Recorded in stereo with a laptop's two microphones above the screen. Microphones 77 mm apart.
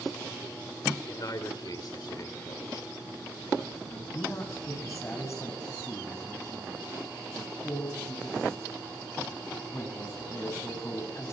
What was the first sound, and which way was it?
A man speaking, 60° left (ahead or behind).